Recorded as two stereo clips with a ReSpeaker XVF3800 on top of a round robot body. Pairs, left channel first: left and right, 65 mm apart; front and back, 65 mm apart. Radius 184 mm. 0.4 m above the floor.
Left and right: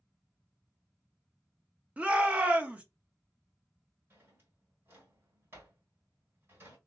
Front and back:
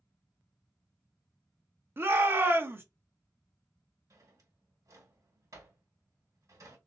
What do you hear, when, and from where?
2.0 s a shout: 145° right, 1.0 m
4.1 s a drawer: 145° right, 1.9 m